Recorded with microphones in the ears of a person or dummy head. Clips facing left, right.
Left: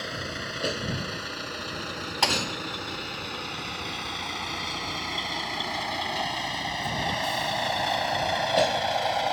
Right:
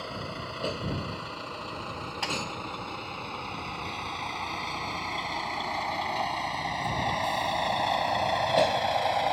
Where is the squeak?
I don't hear a squeak.